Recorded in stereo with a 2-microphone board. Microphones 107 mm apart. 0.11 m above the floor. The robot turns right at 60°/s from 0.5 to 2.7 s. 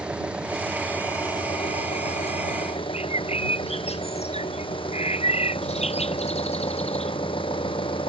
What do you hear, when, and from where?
0.0 s an engine running: 10° right; by 8.1 s 120° left
2.9 s a bird: 80° left